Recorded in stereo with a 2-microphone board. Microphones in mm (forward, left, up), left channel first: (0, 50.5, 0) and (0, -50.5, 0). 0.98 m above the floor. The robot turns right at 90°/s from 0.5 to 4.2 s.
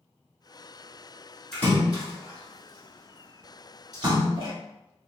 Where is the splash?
5° left (ahead or behind), 1.8 m; by 4.5 s 55° right (ahead or behind), 1.8 m.